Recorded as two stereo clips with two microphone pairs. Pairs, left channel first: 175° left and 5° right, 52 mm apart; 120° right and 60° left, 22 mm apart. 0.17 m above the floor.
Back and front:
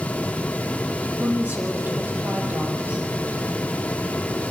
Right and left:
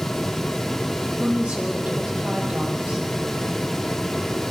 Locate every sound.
1.2 s a woman speaking: 50° left, 6.5 m